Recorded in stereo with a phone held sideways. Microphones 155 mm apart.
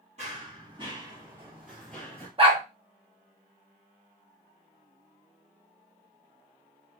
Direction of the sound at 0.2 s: 45° right (ahead or behind).